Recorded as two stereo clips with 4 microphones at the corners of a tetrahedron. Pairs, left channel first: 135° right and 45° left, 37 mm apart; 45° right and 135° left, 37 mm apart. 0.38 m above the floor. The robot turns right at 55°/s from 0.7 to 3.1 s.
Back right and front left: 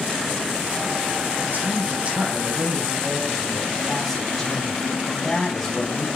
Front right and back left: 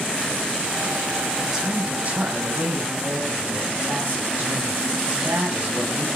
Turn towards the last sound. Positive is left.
turn(degrees=145)